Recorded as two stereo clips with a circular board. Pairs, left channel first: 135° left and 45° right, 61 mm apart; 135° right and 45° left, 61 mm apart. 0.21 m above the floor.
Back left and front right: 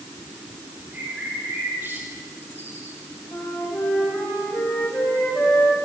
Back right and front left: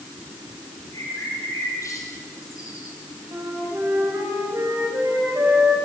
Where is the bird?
100° right, 3.5 m.